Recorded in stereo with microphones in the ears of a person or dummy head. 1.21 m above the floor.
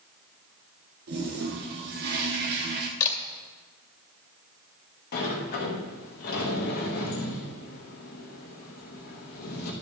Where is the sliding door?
55° left (ahead or behind), 1.8 m.